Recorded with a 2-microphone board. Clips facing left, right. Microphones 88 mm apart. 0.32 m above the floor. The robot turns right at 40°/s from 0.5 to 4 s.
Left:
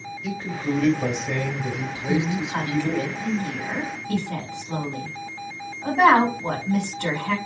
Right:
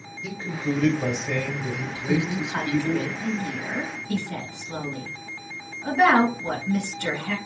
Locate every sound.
0.2 s a man speaking: 5° right (ahead or behind), 1.1 m; by 3.1 s 25° left (ahead or behind), 1.1 m
2.1 s a woman speaking: 5° right (ahead or behind), 2.5 m; by 7.3 s 55° left (ahead or behind), 2.5 m